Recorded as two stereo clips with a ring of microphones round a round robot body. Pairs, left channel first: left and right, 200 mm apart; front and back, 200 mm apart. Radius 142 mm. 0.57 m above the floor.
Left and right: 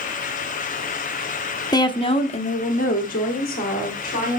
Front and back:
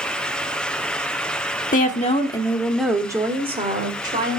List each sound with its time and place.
1.7 s a woman speaking: 25° left, 0.9 m; by 4.4 s 140° left, 1.3 m